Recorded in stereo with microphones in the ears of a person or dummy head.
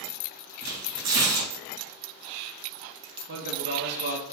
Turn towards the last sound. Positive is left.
turn(degrees=-55)  # may be behind; listen again after turning